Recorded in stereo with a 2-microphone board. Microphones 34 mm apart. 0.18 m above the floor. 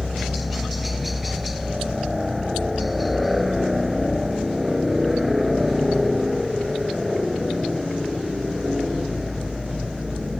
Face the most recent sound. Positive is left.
turn(degrees=-5)  # may be behind; listen again after turning